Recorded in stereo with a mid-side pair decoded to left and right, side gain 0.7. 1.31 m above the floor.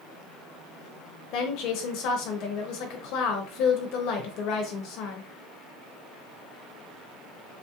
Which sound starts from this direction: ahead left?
A woman speaking, at 1.3 s.